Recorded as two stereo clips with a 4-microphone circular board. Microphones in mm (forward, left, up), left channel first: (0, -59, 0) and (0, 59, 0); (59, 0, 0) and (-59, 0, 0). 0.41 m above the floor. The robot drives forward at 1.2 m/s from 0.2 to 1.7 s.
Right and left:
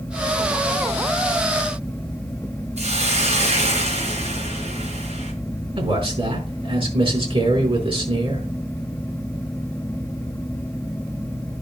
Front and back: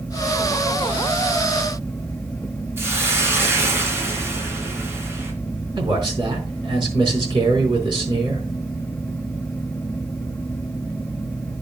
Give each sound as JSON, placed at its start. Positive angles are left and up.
{"t": 2.8, "sound": "a hiss", "azimuth_deg": 110, "distance_m": 3.0}
{"t": 5.8, "sound": "a man speaking", "azimuth_deg": 130, "distance_m": 4.5}